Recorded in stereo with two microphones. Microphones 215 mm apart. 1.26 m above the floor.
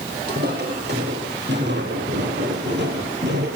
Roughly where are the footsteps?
Right.